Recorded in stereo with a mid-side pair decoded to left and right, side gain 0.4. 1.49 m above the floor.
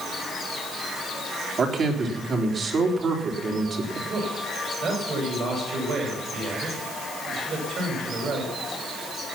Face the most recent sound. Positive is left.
turn(degrees=-60)